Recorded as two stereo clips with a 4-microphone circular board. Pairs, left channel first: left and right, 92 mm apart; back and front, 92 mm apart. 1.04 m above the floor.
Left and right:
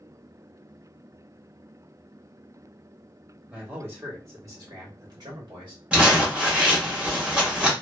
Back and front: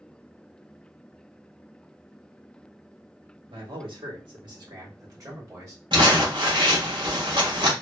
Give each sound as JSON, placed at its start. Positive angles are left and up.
{"t": 3.5, "sound": "a man speaking", "azimuth_deg": -15, "distance_m": 1.8}
{"t": 5.9, "sound": "crumpling", "azimuth_deg": -15, "distance_m": 1.4}